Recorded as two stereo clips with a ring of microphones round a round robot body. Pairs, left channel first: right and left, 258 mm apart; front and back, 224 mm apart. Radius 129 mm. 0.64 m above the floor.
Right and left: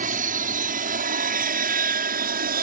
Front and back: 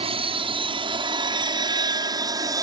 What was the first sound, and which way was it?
An aircraft, 130° left.